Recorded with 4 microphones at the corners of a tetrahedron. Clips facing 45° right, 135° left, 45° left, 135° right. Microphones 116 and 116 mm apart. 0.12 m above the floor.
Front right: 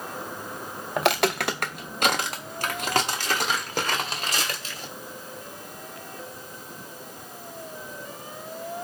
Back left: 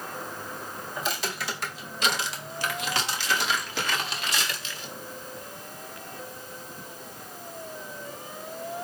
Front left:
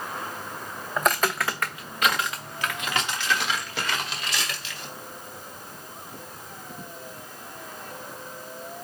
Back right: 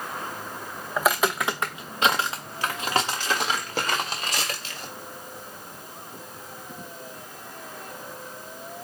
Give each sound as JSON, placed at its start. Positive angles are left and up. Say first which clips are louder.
{"t": 1.0, "sound": "footsteps", "louder": "front right 10 dB, back right 1 dB", "azimuth_deg": -45, "distance_m": 0.7}